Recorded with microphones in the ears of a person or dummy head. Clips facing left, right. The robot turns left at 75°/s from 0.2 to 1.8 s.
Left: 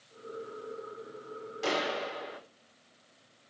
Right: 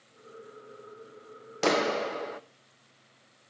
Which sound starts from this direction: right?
A clap, at 1.6 s.